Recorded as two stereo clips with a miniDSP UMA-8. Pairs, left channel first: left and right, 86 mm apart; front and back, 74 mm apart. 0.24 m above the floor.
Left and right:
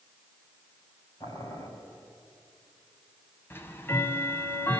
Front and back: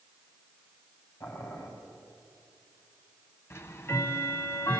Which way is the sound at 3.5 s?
40° left.